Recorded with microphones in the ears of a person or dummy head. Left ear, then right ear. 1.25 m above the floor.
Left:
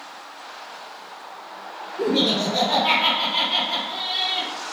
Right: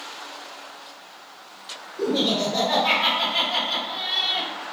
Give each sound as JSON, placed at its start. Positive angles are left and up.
{"t": 2.0, "sound": "laughter", "side_deg": 10, "distance_m": 1.5}